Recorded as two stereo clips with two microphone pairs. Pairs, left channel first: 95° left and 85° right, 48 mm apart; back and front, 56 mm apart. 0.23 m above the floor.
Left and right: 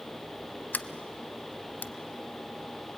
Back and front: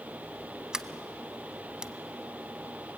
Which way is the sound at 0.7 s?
75° left.